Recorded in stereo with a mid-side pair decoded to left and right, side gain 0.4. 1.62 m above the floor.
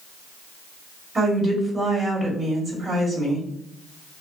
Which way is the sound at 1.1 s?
35° right.